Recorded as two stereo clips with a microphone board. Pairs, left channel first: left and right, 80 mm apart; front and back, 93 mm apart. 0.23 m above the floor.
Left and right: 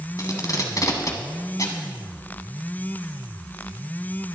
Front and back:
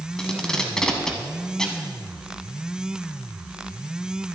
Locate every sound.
0.2 s tape being pulled: 80° left, 1.7 m